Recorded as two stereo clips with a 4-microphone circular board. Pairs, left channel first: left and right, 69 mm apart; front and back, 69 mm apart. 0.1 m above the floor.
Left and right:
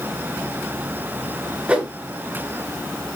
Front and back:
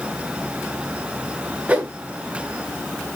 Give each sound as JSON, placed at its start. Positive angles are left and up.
{"t": 1.7, "sound": "a whoosh", "azimuth_deg": -135, "distance_m": 0.6}